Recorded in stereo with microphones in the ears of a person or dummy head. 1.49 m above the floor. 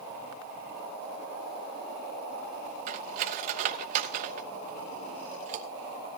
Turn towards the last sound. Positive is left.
turn(degrees=-45)  # may be behind; listen again after turning